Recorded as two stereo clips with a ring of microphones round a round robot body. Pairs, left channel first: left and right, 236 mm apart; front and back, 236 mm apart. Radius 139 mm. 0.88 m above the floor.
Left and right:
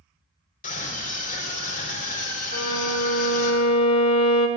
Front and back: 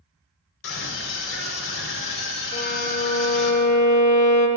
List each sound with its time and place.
0.6 s a scream: 35° left, 4 m
2.5 s a violin: 60° left, 1.5 m